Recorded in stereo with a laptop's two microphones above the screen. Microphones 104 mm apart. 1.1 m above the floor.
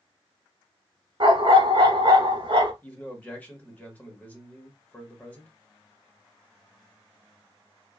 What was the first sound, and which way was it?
A dog barking, 50° right (ahead or behind).